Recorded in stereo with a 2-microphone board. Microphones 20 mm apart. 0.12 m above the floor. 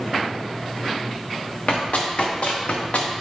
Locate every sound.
1.7 s running footsteps: 70° left (ahead or behind), 1.7 m; by 3.1 s 80° left, 1.0 m